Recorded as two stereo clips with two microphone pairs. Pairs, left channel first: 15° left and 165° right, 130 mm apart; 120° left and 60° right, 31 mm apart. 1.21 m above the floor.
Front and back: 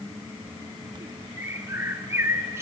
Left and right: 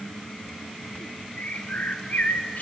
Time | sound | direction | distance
1.4 | a bird | 125° left | 1.2 m